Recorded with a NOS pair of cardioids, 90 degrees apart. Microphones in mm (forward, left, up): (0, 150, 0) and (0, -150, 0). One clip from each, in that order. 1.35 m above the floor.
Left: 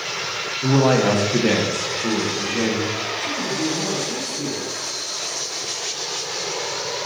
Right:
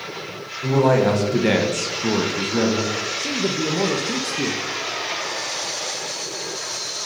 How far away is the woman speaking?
About 1.0 m.